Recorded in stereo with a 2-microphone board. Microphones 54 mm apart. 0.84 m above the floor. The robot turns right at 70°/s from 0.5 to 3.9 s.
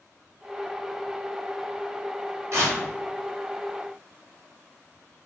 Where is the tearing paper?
60° right (ahead or behind), 2.0 m; by 2.8 s 45° right (ahead or behind), 2.0 m.